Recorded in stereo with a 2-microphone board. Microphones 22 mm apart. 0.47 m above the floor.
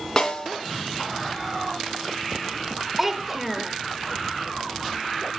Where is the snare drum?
30° left (ahead or behind), 3 m.